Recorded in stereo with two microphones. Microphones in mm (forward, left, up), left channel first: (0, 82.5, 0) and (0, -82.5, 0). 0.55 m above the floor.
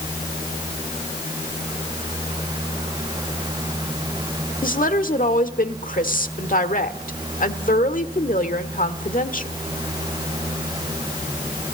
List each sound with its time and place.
4.6 s a woman speaking: 55° left (ahead or behind), 1.4 m